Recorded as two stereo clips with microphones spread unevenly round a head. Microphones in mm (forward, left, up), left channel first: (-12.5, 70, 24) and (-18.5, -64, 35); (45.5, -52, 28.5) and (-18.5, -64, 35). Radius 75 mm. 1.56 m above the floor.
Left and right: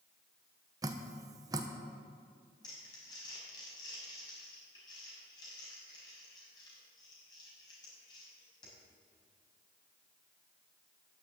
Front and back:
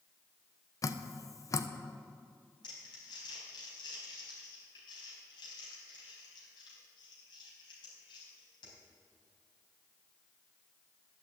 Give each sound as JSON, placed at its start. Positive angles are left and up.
{"t": 0.8, "sound": "dripping", "azimuth_deg": -25, "distance_m": 0.9}
{"t": 2.6, "sound": "crumpling", "azimuth_deg": 20, "distance_m": 4.0}